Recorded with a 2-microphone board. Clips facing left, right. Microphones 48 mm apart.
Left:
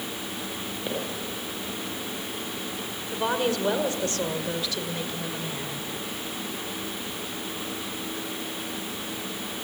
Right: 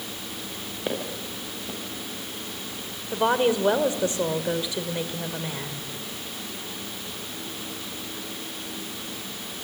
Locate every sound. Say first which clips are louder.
0.9 s footsteps: right 2 dB; 25° right (ahead or behind), 7.5 m
3.1 s a woman speaking: right 4 dB; 20° right (ahead or behind), 1.8 m